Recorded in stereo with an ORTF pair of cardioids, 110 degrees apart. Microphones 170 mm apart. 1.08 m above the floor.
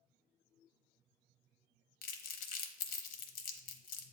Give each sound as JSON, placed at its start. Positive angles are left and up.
{"t": 2.0, "sound": "crumpling", "azimuth_deg": 65, "distance_m": 0.7}